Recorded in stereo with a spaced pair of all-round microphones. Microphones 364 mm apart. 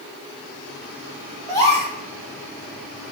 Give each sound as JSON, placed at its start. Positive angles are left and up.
{"t": 1.5, "sound": "a gasp", "side_deg": 10, "distance_m": 1.6}